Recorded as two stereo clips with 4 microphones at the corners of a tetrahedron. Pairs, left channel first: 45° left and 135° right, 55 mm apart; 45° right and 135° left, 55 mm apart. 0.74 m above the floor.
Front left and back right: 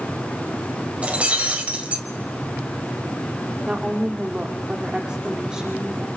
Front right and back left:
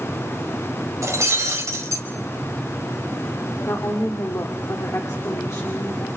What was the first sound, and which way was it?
Breaking glass, 160° left.